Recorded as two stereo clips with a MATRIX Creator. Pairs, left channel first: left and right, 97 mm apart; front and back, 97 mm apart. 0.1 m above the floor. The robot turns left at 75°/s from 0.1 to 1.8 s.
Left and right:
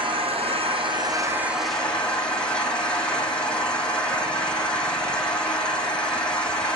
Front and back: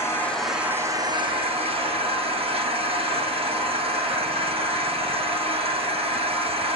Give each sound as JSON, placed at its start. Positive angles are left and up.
{"t": 0.0, "sound": "an engine running", "azimuth_deg": -65, "distance_m": 3.5}